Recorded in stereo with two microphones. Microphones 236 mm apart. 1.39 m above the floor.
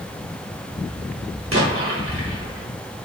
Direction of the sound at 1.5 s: 65° right (ahead or behind).